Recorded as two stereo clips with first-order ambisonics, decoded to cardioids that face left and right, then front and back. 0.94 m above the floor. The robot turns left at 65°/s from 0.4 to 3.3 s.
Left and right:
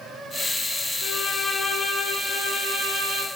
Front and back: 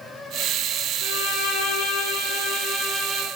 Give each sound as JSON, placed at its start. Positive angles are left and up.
{"t": 1.0, "sound": "a violin", "azimuth_deg": 45, "distance_m": 0.5}